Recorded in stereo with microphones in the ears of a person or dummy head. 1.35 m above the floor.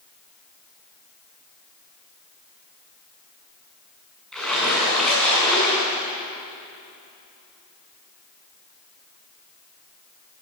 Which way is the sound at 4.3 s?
Centre (ahead or behind).